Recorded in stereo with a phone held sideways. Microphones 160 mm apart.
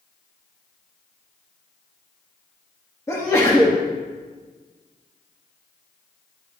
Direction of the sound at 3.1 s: 20° left (ahead or behind).